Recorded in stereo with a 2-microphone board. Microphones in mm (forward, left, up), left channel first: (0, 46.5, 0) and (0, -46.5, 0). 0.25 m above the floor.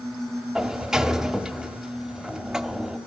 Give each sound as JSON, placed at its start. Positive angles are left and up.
{"t": 0.6, "sound": "a sliding door", "side_deg": -5, "distance_m": 1.0}